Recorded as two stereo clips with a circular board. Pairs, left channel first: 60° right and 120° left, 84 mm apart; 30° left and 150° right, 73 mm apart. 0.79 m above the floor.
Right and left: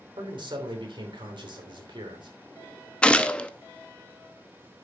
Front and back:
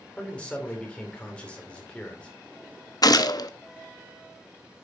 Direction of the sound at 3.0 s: 15° left.